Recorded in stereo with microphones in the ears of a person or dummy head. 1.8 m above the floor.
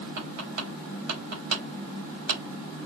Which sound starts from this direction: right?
Tapping, at 0.2 s.